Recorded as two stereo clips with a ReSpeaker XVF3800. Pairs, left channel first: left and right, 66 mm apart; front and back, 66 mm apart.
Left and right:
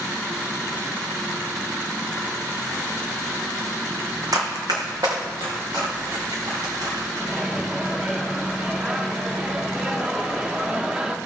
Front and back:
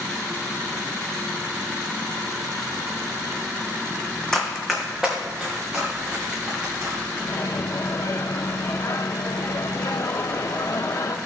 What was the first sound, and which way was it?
Running footsteps, 80° right.